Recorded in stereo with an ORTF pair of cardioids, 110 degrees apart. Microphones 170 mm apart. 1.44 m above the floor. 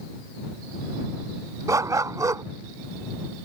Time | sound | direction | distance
1.7 | a dog barking | 20° right | ?